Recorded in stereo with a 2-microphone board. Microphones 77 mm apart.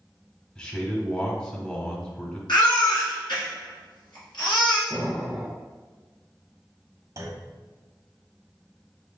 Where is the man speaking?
15° left (ahead or behind), 1.1 m.